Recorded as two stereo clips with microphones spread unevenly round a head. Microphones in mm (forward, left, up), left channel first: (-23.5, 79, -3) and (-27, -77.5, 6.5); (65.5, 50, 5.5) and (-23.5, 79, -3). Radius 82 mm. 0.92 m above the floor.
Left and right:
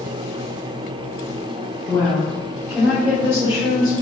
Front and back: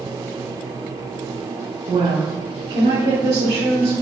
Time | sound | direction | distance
1.9 | a woman speaking | 160° left | 3 m